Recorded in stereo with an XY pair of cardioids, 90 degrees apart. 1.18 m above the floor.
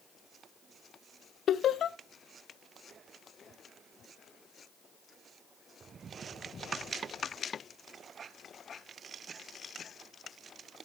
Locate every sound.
1.5 s laughter: 70° left, 0.5 m